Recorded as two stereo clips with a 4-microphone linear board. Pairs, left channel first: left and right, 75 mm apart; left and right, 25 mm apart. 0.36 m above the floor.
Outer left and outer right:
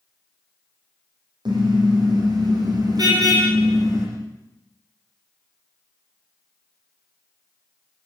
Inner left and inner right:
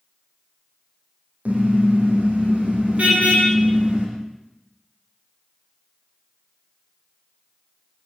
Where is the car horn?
75° right (ahead or behind), 9 m; by 4.1 s 45° right (ahead or behind), 9 m.